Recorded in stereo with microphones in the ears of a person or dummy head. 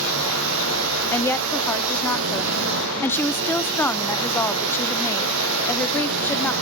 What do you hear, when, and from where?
0.0 s a machine running: 70° right (ahead or behind), 0.9 m
1.1 s a woman speaking: 10° left (ahead or behind), 0.5 m